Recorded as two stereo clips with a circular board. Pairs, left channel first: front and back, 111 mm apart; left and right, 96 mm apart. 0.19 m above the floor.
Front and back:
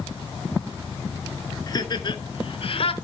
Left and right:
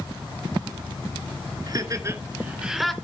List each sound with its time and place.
1.7 s laughter: 50° right, 2 m; by 2.9 s 5° left, 1.7 m